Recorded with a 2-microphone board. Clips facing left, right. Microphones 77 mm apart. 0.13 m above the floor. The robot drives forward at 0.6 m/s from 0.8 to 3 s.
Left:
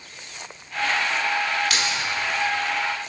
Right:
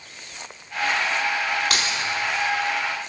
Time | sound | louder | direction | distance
1.7 | keys jangling | even | 45° right (ahead or behind) | 2.0 m